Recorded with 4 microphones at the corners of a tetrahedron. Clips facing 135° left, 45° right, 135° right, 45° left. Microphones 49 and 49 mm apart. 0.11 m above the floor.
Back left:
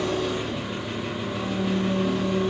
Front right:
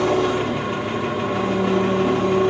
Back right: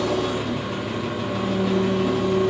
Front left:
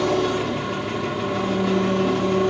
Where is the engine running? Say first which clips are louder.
Front right 7 dB, front left 2 dB; 50° right, 2 m.